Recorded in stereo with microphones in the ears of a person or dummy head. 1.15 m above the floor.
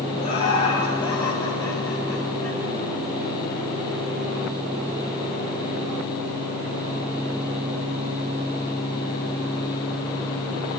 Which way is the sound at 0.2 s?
35° left (ahead or behind).